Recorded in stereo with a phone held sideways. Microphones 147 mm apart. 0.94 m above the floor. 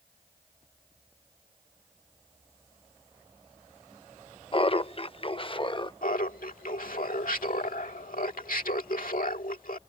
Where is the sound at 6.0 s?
75° left (ahead or behind).